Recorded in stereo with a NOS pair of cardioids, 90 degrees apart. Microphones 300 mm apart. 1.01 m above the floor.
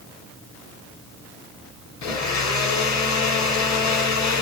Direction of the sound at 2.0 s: 65° left.